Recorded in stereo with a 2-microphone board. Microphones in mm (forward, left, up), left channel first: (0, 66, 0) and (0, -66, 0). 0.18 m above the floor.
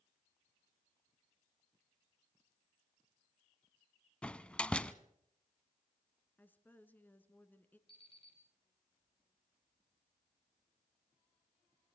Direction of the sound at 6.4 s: 15° left (ahead or behind).